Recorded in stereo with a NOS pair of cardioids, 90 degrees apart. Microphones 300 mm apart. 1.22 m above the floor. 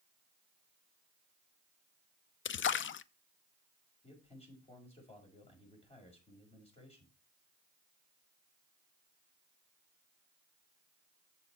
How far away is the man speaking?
About 5.5 m.